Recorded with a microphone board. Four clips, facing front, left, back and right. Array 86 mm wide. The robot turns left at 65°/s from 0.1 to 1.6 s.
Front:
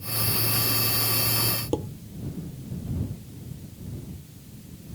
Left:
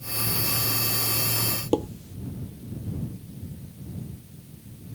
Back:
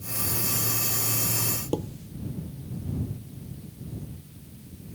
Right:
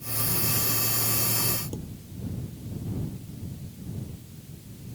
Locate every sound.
1.7 s dishes clattering: 85° left